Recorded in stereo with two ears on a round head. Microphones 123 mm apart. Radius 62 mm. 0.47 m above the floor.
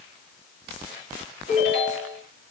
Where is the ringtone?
45° left (ahead or behind), 5.5 m.